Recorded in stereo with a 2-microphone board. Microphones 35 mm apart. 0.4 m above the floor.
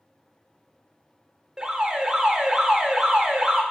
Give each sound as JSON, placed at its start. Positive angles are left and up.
{"t": 1.6, "sound": "an alarm", "side_deg": -15, "distance_m": 0.7}